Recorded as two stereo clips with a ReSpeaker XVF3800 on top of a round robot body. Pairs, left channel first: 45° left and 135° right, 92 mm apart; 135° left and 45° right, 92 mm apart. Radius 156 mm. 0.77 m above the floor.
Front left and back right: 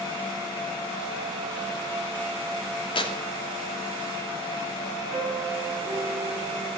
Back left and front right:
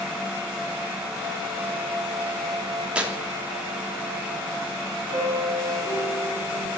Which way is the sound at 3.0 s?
30° left.